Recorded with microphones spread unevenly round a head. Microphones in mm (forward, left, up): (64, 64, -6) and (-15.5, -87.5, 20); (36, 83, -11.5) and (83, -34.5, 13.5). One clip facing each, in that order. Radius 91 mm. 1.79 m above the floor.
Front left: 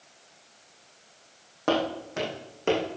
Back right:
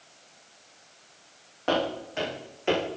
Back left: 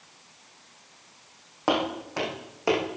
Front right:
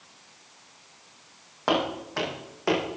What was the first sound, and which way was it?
Footsteps, 30° left.